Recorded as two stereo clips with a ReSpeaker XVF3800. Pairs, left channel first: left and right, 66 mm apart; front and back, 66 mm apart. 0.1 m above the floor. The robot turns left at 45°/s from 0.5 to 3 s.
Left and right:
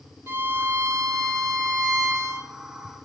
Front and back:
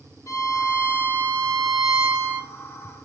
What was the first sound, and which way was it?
A violin, 35° right.